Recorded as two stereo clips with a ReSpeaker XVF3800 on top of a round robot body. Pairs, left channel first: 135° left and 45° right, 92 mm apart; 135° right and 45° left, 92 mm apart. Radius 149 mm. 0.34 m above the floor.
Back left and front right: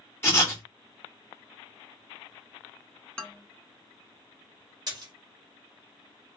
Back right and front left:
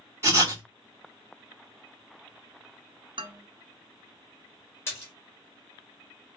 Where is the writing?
85° left, 1.9 m.